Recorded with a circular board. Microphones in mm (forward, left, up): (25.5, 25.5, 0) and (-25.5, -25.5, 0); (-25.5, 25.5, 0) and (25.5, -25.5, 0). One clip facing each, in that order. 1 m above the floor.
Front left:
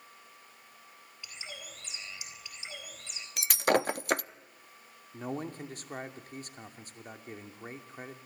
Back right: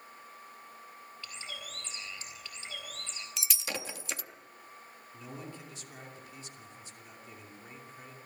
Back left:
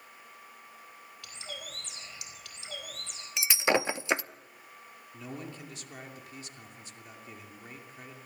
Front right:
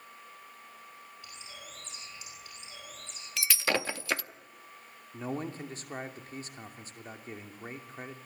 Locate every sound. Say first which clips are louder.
1.2 s a bird: even, back left 8 dB; 120° left, 4.5 m
3.4 s breaking glass: front left 14 dB, back left 4 dB; 70° left, 0.6 m
5.1 s a man speaking: front left 8 dB, front right 6 dB; 5° left, 2.5 m